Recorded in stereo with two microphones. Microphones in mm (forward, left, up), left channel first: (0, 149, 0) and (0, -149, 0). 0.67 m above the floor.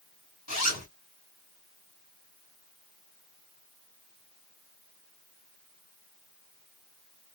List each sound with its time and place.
0.5 s a zipper: 60° left (ahead or behind), 2.5 m